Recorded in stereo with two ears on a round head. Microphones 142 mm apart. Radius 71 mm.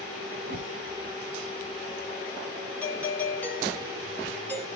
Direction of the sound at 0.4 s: 55° right (ahead or behind).